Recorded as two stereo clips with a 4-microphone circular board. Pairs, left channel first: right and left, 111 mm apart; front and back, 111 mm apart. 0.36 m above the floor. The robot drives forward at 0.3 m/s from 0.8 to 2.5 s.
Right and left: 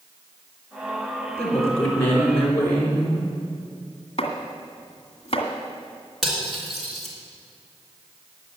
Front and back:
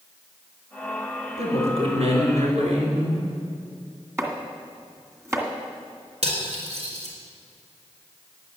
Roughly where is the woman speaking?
Behind.